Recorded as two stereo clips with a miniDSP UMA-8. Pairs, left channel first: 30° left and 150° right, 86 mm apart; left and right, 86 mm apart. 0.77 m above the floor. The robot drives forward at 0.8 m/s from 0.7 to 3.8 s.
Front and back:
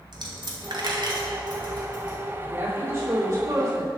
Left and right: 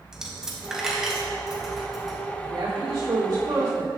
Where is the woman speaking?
90° right, 2.5 m; by 3.9 s 120° right, 2.5 m.